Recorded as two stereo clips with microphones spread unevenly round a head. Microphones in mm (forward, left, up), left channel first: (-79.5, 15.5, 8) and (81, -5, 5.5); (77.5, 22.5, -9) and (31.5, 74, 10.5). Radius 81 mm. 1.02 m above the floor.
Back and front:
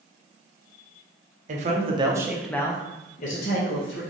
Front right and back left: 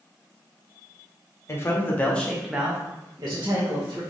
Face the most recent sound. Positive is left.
turn(degrees=175)